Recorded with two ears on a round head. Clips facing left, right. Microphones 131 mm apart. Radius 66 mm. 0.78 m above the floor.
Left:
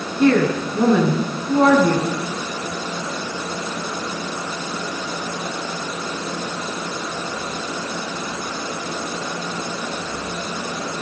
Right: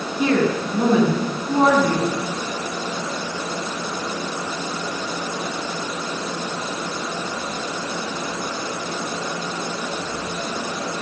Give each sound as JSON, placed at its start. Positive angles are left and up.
{"t": 0.2, "sound": "a woman speaking", "side_deg": -10, "distance_m": 7.5}